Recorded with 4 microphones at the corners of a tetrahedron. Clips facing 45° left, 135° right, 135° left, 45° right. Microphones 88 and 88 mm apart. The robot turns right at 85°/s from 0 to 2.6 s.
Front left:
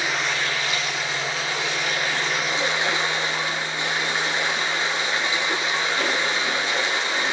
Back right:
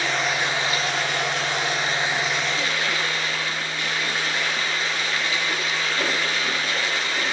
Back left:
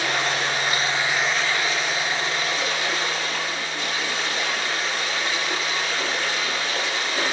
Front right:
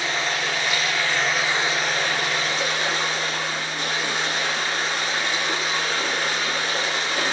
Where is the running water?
115° left, 7 m; by 7.3 s 20° right, 7 m.